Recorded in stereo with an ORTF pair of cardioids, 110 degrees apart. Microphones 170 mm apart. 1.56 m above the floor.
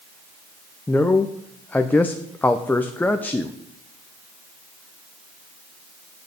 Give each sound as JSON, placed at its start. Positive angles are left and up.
{"t": 0.9, "sound": "a man speaking", "azimuth_deg": 10, "distance_m": 0.7}